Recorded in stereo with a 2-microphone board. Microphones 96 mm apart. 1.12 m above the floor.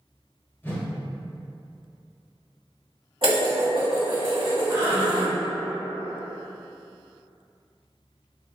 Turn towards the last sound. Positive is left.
turn(degrees=-55)  # may be behind; listen again after turning